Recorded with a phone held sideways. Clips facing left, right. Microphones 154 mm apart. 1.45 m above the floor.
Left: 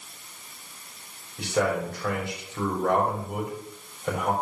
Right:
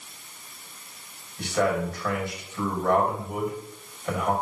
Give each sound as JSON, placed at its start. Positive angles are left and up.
{"t": 1.4, "sound": "a man speaking", "side_deg": 80, "distance_m": 4.0}